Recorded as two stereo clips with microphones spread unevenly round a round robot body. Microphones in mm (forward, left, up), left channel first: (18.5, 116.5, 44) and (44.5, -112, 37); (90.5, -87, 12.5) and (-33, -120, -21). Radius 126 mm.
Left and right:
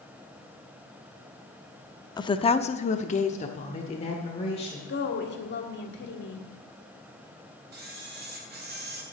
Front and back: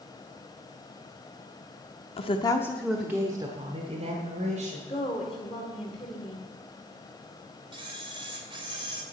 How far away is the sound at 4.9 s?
About 1.7 m.